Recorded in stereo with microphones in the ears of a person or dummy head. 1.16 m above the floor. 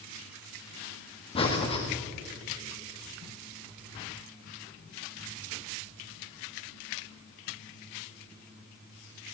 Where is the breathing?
30° left (ahead or behind), 1.8 m.